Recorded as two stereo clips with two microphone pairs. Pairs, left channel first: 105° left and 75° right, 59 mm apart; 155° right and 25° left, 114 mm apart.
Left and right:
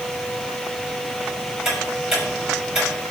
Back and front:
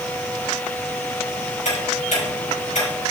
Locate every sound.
1.6 s ticking: 160° right, 5.5 m